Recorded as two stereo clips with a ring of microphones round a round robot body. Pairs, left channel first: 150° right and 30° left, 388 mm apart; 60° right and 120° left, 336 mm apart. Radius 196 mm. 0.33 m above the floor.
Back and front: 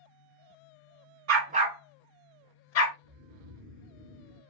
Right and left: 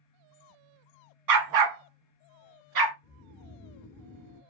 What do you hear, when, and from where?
1.3 s a dog barking: 90° left, 0.7 m; by 2.9 s 160° left, 1.1 m
3.0 s snoring: 15° left, 1.1 m